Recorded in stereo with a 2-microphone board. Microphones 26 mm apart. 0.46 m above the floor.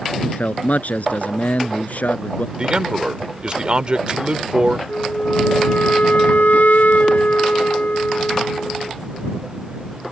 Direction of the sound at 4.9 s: 75° left (ahead or behind).